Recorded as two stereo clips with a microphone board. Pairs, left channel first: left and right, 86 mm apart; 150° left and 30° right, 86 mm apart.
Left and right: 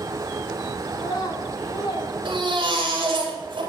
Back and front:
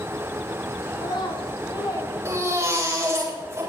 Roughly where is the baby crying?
Right.